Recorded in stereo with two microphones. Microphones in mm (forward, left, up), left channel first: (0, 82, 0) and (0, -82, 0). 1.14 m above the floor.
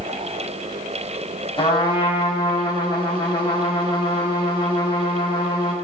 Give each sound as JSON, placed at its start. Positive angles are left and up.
{"t": 1.6, "sound": "a trumpet", "side_deg": 30, "distance_m": 5.0}